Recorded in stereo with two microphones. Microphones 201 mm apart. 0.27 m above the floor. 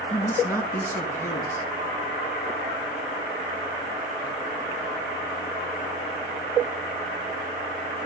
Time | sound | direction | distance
0.1 | a man speaking | 10° left (ahead or behind) | 3 m